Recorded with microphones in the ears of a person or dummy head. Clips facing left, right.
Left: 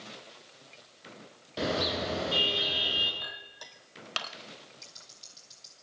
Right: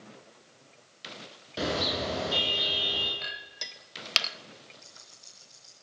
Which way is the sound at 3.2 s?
30° right (ahead or behind).